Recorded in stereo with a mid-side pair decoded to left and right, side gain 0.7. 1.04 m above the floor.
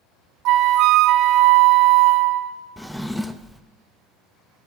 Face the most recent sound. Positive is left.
turn(degrees=5)